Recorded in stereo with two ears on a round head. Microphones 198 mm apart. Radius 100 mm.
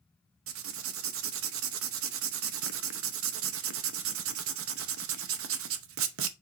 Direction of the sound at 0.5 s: 60° right (ahead or behind).